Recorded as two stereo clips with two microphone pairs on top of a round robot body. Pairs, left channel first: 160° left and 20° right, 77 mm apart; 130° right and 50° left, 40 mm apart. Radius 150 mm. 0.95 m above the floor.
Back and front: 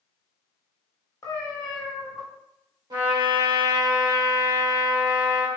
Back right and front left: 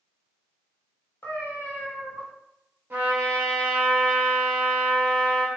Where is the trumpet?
5° left, 1.6 m.